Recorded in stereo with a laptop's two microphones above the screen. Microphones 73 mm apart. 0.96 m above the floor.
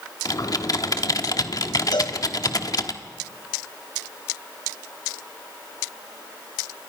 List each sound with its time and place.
0.2 s typing on a keyboard: 50° left (ahead or behind), 1.2 m
1.9 s a cowbell: 75° left (ahead or behind), 2 m